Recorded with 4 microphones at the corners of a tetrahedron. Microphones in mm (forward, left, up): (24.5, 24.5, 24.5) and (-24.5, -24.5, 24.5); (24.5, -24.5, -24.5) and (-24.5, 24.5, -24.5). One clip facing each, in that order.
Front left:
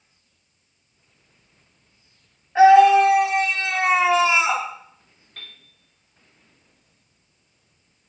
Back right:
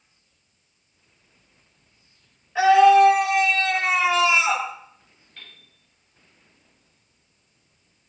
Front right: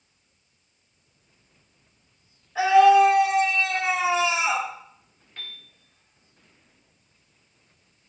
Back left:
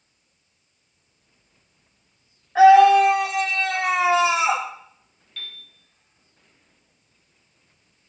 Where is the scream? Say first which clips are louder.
Front left 2 dB, back left 4 dB; 95° left, 6.5 m; by 4.7 s 105° left, 4 m.